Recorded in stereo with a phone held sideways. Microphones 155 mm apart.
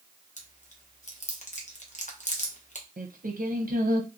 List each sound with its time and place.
0.4 s chewing: 50° left (ahead or behind), 0.7 m
3.0 s singing: 70° right (ahead or behind), 0.7 m